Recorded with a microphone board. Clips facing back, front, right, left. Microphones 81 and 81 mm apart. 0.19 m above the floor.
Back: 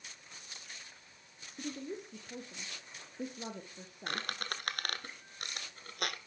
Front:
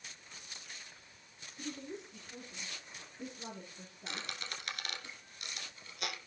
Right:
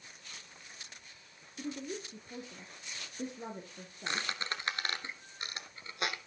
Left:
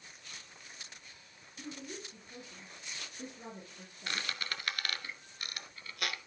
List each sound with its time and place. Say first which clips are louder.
1.6 s a woman speaking: back 3 dB, right 5 dB; 150° right, 3 m
4.1 s a squeak: back 5 dB, right 2 dB; 155° right, 1.7 m